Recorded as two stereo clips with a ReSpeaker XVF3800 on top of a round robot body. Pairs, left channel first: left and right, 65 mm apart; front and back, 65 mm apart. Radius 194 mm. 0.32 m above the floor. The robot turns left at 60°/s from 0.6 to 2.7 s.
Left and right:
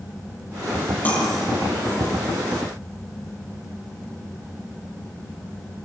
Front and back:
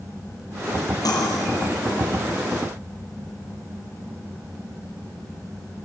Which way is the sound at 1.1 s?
25° left.